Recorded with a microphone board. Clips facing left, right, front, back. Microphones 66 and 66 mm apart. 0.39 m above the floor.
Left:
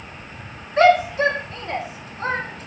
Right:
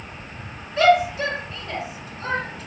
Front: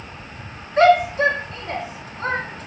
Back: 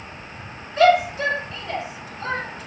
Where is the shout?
50° left, 3.5 m.